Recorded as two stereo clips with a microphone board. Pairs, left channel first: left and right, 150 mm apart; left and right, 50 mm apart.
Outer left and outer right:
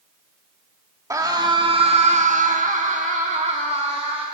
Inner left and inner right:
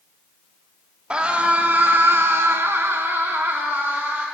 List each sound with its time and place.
1.1 s a scream: 20° right (ahead or behind), 1.8 m; by 4.3 s 40° right (ahead or behind), 2.5 m